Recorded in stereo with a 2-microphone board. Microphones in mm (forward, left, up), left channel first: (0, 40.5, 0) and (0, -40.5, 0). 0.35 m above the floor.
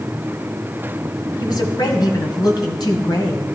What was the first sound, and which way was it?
A woman speaking, 65° left (ahead or behind).